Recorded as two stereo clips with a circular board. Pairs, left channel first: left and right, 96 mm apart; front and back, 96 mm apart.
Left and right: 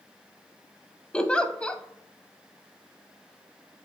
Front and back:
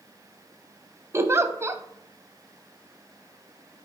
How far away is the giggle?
About 0.5 m.